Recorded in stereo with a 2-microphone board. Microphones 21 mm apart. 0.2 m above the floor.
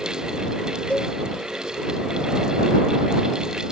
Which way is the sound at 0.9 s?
80° left.